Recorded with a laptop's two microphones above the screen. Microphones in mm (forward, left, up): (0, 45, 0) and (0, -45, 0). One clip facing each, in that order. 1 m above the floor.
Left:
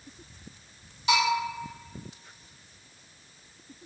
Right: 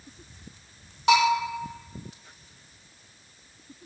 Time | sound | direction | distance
1.1 | a bell | 60° right (ahead or behind) | 1.1 m